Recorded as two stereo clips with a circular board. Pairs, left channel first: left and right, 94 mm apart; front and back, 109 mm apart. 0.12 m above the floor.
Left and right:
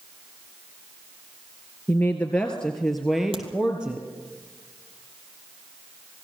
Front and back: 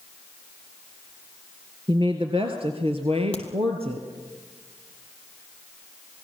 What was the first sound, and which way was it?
A woman speaking, 155° left.